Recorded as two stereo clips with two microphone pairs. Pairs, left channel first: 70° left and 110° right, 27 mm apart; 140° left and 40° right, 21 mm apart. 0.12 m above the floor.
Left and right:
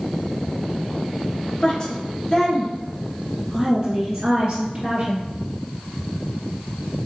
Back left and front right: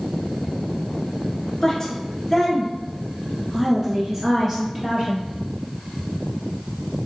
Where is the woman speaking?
85° left, 1.5 m; by 5.2 s 90° right, 1.6 m.